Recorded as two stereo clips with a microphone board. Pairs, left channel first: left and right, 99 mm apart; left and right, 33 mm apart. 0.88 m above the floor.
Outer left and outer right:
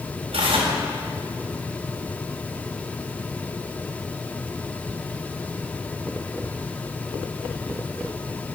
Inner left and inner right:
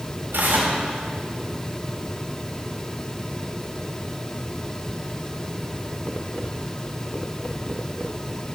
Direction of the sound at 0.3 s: 80° right.